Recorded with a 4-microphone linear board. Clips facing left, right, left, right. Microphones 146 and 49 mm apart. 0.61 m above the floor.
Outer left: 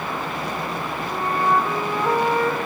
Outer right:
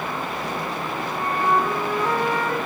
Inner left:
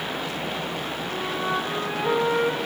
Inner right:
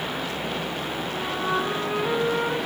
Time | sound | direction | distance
1.1 | a flute | 10° left (ahead or behind) | 8.5 m